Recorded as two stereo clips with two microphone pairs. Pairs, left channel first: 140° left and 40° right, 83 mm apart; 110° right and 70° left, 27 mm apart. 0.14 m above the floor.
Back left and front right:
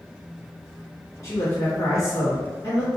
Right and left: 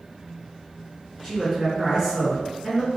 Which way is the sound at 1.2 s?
145° left.